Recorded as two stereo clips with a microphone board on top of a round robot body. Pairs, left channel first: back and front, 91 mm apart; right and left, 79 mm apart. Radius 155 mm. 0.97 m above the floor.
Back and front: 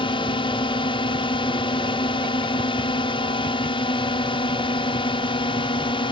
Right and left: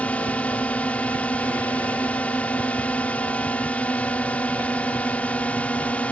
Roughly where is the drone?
Behind.